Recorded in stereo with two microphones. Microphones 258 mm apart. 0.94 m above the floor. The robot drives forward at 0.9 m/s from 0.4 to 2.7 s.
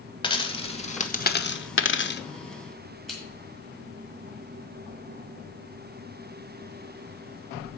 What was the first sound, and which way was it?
A dropped coin, 20° left (ahead or behind).